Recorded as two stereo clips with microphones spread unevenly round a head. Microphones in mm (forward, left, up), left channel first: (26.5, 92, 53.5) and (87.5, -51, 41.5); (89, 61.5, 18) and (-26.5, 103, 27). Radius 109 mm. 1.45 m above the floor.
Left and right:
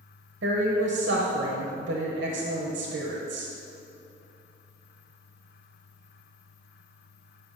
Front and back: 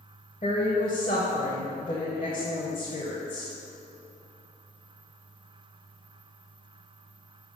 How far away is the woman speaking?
About 0.7 m.